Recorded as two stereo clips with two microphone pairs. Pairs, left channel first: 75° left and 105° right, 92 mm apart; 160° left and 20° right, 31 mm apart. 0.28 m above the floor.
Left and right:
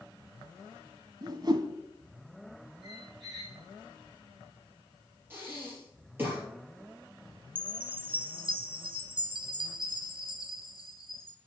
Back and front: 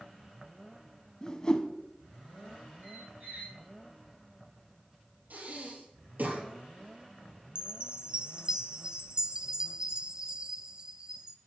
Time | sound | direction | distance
1.2 | a whoosh | 135° right | 0.9 m
2.8 | a squeak | 10° right | 3.5 m
5.3 | breathing | 35° right | 3 m
7.5 | a chime | 80° right | 0.7 m